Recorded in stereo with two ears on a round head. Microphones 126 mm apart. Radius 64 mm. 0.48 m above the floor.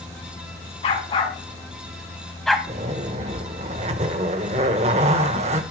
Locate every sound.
0.8 s a dog barking: 45° left (ahead or behind), 2 m; by 2.6 s centre (ahead or behind), 1.3 m
2.7 s a zipper: 45° right (ahead or behind), 1.2 m